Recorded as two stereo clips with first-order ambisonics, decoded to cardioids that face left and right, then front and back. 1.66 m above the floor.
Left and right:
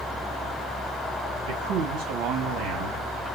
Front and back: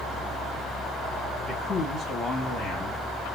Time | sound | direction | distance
1.5 | a man speaking | 85° right | 2 m